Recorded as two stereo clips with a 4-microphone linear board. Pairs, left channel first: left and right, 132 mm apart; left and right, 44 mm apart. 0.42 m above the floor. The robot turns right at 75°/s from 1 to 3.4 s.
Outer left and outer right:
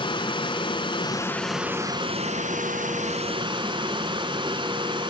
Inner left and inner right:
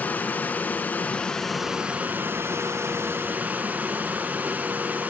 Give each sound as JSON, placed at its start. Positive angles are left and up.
{"t": 0.0, "sound": "running water", "azimuth_deg": 145, "distance_m": 2.0}